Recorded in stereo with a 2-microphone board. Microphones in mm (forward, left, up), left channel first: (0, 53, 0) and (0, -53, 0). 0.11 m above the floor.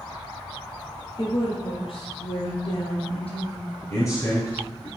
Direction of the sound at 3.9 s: 30° left (ahead or behind).